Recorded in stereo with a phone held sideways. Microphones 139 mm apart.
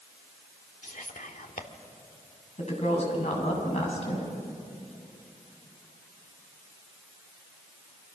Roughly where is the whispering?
Left.